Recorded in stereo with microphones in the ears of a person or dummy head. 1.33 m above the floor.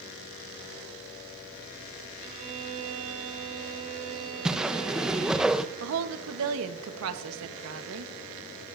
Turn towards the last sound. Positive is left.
turn(degrees=-80)